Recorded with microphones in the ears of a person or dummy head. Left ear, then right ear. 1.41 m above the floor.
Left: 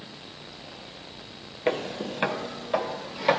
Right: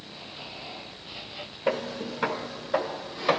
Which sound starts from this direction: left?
Footsteps, at 1.7 s.